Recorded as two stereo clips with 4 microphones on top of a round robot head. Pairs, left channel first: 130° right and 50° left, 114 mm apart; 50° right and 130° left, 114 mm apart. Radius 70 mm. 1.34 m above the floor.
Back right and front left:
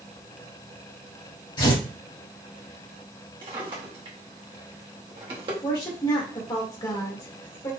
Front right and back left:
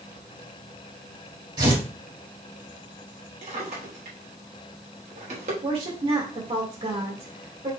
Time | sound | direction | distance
1.6 | tearing paper | straight behind | 3 m
3.4 | a drawer | 100° left | 1.2 m
5.6 | a woman speaking | 175° left | 1.8 m